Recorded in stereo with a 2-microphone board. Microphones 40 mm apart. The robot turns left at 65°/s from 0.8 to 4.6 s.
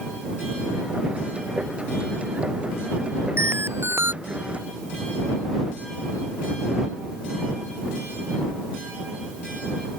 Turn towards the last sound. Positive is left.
turn(degrees=-155)